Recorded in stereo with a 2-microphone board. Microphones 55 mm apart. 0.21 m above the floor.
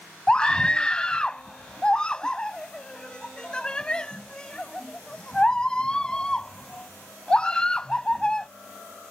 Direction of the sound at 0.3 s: 15° left (ahead or behind).